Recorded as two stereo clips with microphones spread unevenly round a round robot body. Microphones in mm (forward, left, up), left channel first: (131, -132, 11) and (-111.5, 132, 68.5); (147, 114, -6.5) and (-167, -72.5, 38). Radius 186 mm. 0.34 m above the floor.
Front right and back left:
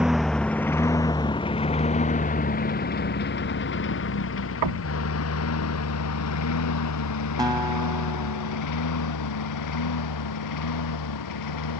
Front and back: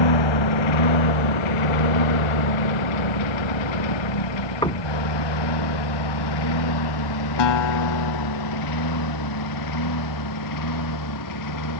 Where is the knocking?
110° left.